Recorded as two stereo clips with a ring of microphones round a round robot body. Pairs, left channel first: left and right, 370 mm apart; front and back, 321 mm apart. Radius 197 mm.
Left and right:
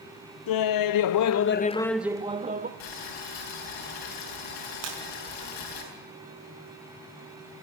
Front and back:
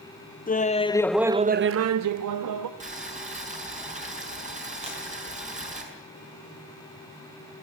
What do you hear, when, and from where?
0.5 s laughter: 65° left, 1.0 m; by 2.7 s 155° right, 1.1 m
2.8 s boiling: 115° left, 6.5 m
4.8 s breaking glass: 105° right, 5 m